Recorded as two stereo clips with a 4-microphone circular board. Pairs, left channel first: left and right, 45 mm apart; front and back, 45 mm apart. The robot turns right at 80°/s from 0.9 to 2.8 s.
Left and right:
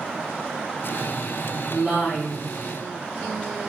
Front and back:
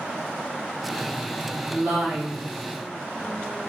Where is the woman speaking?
Straight behind, 1.0 m; by 2.5 s 115° right, 1.0 m.